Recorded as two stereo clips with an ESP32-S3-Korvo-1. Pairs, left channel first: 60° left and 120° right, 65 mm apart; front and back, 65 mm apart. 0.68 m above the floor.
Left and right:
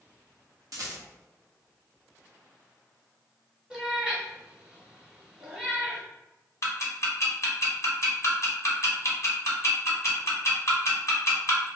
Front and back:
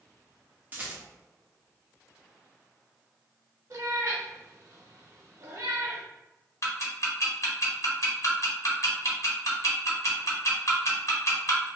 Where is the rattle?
125° right, 0.6 m.